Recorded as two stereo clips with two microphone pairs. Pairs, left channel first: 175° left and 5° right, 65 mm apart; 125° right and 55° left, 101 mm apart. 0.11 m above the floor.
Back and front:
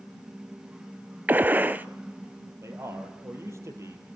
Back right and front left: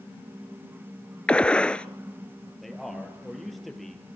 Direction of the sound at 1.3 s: 55° right.